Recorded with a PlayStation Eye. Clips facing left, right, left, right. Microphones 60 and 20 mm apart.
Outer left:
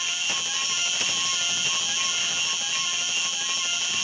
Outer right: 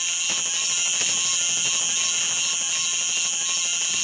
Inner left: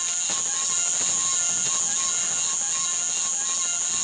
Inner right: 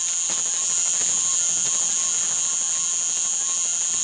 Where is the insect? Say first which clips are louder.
Outer left 1 dB, inner right 1 dB; 15° right (ahead or behind), 1.1 m.